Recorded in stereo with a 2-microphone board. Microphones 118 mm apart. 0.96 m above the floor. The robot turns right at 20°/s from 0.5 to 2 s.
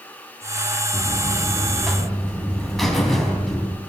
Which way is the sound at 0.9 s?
20° right (ahead or behind).